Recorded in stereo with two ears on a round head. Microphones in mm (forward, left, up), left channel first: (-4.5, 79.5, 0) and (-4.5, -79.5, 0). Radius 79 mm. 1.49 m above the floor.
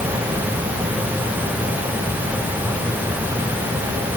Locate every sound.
Only background noise.